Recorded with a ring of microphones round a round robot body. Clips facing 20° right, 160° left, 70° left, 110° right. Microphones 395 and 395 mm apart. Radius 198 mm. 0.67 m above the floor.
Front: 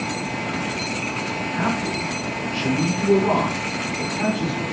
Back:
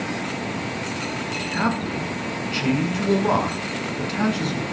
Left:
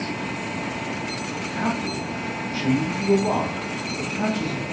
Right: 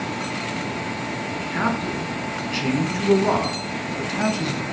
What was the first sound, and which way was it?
A man speaking, 165° right.